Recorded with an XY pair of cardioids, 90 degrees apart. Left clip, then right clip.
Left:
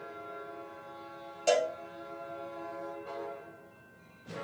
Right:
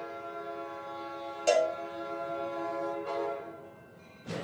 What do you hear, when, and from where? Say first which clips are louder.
1.5 s a cowbell: right 2 dB; 5° right, 2.5 m